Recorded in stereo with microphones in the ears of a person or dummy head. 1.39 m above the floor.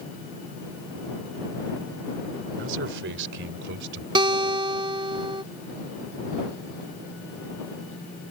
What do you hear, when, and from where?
2.6 s a man speaking: 75° right (ahead or behind); by 4.0 s 70° right (ahead or behind)
4.2 s a guitar: 25° right (ahead or behind)